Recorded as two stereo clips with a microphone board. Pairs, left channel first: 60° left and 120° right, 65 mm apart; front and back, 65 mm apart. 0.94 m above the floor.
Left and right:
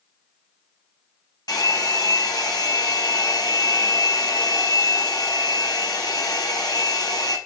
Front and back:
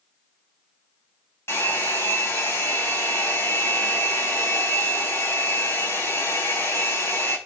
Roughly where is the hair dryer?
Ahead left.